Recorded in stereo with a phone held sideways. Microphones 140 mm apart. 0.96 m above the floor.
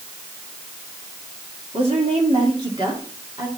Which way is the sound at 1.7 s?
45° right (ahead or behind).